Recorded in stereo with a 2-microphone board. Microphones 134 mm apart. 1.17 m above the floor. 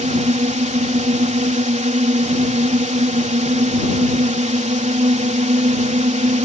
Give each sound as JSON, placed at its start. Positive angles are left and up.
{"t": 0.0, "sound": "a drone", "side_deg": -65}